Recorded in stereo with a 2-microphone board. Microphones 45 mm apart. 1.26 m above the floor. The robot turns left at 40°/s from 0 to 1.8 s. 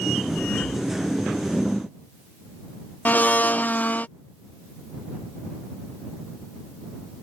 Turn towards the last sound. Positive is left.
turn(degrees=40)  # may be behind; listen again after turning